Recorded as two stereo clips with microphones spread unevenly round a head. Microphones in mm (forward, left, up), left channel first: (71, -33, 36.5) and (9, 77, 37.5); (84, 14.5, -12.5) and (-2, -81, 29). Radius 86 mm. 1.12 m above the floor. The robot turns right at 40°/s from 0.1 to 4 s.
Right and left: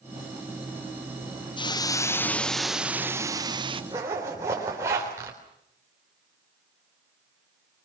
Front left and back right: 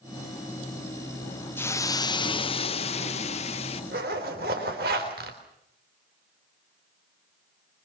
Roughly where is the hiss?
Ahead.